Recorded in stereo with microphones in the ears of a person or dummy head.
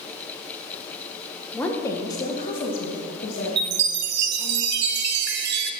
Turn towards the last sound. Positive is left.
turn(degrees=-65)  # may be behind; listen again after turning